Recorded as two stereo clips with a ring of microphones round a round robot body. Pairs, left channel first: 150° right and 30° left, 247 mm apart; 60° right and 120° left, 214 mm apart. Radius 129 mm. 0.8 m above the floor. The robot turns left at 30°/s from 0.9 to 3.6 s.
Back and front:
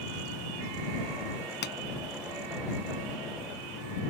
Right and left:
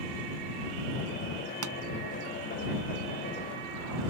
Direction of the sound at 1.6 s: 155° left.